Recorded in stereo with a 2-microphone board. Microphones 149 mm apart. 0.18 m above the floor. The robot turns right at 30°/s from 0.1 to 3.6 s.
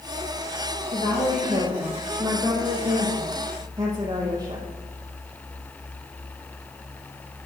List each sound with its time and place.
0.9 s a woman speaking: 105° right, 5.5 m; by 4.7 s 25° right, 5.5 m